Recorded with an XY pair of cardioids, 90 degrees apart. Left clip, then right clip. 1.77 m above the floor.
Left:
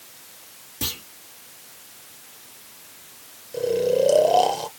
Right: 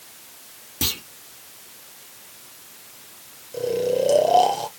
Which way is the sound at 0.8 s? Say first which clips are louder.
Right 4 dB; 45° right.